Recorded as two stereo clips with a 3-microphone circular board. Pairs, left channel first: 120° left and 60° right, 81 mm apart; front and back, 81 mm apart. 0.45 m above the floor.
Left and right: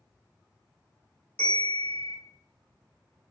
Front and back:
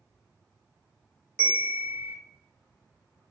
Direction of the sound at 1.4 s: 150° left.